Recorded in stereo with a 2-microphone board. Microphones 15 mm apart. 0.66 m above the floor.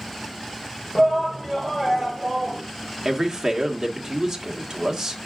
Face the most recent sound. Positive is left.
turn(degrees=-40)  # may be behind; listen again after turning